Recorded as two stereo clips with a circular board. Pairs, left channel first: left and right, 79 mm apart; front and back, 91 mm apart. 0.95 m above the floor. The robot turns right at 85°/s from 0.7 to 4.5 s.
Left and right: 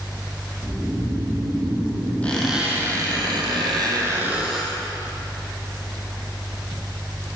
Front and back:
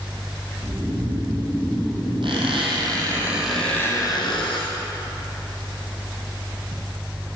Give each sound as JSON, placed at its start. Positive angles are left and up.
{"t": 0.6, "sound": "snoring", "azimuth_deg": 175, "distance_m": 2.0}
{"t": 2.2, "sound": "a squeak", "azimuth_deg": 160, "distance_m": 2.5}